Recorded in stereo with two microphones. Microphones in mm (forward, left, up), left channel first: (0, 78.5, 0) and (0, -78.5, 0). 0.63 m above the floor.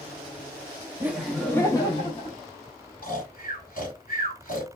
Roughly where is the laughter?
Centre.